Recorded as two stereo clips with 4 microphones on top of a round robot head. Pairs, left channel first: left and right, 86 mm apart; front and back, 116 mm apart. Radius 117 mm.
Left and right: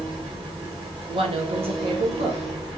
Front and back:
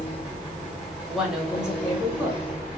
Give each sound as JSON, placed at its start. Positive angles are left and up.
{"t": 0.0, "sound": "an engine running", "azimuth_deg": -95, "distance_m": 2.5}
{"t": 1.1, "sound": "a woman speaking", "azimuth_deg": -95, "distance_m": 1.1}